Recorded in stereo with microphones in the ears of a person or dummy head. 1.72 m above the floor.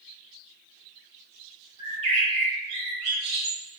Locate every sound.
1.8 s a bird: 35° right (ahead or behind), 1.1 m